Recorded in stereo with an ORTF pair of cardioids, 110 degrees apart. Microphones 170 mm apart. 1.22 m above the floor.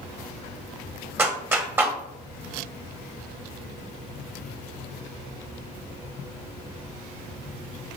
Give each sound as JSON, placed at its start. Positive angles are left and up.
{"t": 1.2, "sound": "a clap", "azimuth_deg": -10, "distance_m": 0.9}